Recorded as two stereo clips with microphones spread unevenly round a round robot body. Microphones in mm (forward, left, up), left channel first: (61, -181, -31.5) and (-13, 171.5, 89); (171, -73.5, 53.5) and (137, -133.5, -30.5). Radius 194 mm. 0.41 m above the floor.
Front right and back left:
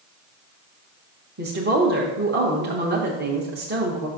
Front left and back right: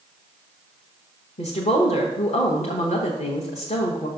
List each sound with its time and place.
1.4 s a woman speaking: 30° left, 1.1 m